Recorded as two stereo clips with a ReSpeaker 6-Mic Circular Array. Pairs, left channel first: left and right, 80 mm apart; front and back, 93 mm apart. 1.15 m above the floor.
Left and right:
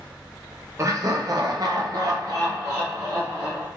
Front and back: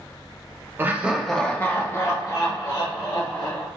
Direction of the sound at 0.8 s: 125° right.